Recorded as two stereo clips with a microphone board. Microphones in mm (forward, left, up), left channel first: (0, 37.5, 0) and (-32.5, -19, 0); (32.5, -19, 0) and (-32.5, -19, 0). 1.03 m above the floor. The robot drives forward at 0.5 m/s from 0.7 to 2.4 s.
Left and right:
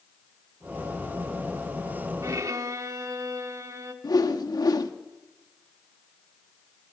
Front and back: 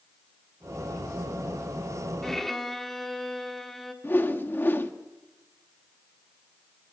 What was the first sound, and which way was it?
A violin, 85° right.